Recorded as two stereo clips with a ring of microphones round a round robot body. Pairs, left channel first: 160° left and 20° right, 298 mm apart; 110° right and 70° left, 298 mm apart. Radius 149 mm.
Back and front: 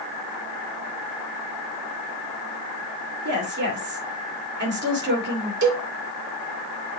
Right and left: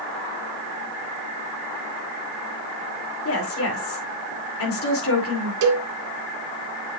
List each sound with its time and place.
3.2 s a woman speaking: 75° right, 2.5 m
5.6 s a cowbell: 25° left, 1.7 m